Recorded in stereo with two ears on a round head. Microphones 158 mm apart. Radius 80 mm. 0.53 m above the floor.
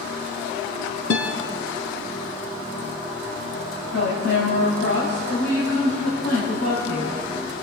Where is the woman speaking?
65° left (ahead or behind), 3.5 m.